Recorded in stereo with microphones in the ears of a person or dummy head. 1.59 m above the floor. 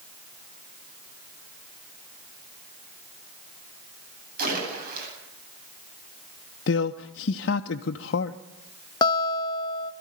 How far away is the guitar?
About 1.0 m.